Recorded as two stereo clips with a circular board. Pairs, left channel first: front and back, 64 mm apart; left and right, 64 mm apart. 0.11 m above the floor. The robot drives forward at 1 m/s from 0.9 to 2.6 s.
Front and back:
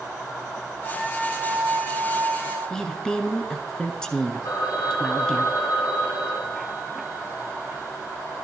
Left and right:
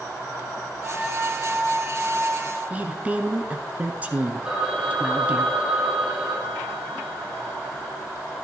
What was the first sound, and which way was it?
A flute, 30° right.